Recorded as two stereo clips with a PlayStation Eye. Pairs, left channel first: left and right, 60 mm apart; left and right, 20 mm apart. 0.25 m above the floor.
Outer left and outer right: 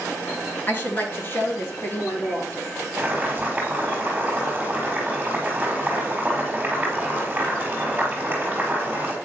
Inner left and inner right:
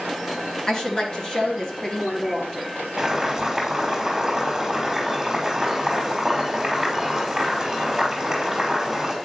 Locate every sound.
0.7 s a woman speaking: 35° left (ahead or behind), 3 m; by 2.7 s 40° left (ahead or behind), 5.5 m
3.0 s boiling: 20° right (ahead or behind), 5 m